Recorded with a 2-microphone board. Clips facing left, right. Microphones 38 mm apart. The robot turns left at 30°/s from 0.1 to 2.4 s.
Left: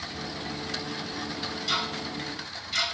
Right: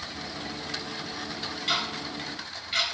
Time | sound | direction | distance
1.7 | ticking | 45° right (ahead or behind) | 1.5 m